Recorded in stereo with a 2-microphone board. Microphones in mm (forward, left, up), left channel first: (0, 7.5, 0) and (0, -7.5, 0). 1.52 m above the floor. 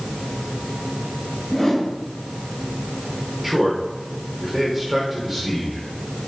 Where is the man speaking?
20° right (ahead or behind), 6 m.